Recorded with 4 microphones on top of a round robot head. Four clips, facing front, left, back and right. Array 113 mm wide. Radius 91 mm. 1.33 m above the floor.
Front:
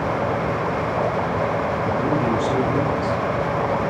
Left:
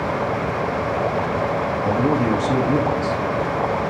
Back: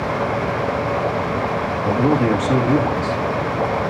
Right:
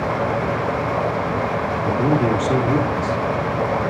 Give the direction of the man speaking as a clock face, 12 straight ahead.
8 o'clock.